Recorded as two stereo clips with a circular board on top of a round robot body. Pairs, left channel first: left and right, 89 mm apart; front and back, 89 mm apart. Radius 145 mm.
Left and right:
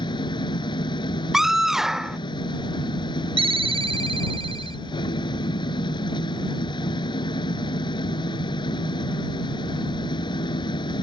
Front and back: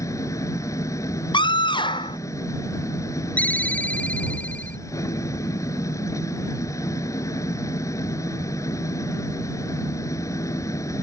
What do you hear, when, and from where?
0.0 s an engine running: 55° left
1.3 s a scream: 5° right
3.4 s a ringtone: 75° right